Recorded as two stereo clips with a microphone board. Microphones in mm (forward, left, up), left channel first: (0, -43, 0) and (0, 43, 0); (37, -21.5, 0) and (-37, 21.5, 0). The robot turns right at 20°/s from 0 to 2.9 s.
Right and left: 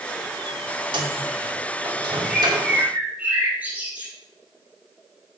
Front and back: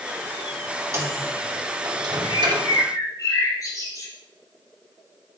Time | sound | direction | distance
0.9 | a microwave | 95° left | 2 m
2.2 | a bird | 5° left | 4 m